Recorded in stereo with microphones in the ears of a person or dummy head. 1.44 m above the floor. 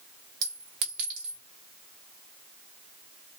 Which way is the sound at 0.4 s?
60° right (ahead or behind).